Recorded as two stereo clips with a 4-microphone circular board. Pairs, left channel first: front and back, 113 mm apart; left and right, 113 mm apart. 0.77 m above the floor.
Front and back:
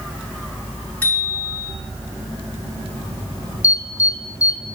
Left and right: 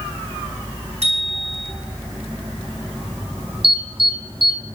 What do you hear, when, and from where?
1.0 s a bicycle bell: 75° right, 6.5 m
3.6 s an alarm: 60° right, 1.3 m